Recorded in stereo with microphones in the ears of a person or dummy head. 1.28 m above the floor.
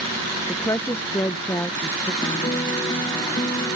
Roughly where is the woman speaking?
Centre.